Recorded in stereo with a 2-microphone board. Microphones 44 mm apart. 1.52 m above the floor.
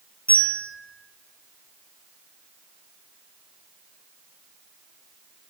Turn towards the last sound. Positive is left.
turn(degrees=35)  # may be behind; listen again after turning